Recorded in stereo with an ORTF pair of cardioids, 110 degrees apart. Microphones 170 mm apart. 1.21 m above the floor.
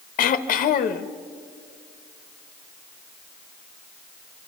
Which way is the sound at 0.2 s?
55° left.